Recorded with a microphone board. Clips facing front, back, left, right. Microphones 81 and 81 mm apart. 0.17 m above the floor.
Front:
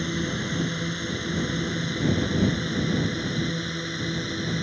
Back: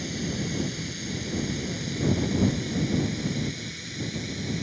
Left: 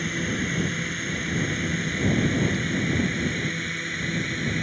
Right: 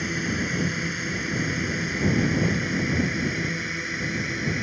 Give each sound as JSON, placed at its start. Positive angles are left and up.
{"t": 0.0, "sound": "a drone", "azimuth_deg": -10}